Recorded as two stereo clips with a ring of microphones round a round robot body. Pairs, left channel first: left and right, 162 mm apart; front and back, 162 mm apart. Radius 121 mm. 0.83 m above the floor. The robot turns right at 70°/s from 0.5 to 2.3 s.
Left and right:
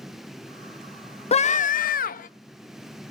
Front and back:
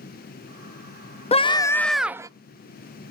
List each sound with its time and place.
1.3 s a scream: 45° left, 0.6 m; by 2.3 s 115° left, 0.6 m